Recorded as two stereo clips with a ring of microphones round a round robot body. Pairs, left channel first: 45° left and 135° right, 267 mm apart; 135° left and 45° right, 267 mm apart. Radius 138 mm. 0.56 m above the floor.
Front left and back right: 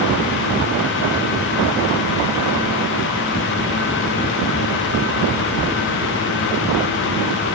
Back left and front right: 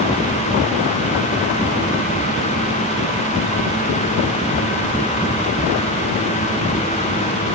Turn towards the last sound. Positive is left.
No sound to turn to.